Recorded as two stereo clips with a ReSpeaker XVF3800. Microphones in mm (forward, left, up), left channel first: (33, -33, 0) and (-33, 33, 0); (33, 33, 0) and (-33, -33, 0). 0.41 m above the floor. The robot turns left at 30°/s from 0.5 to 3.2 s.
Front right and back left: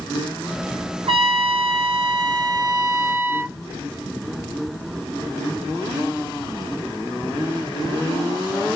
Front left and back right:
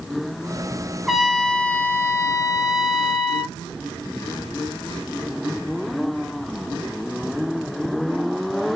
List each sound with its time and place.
1.1 s a trumpet: 140° left, 0.8 m; by 3.5 s 75° left, 0.8 m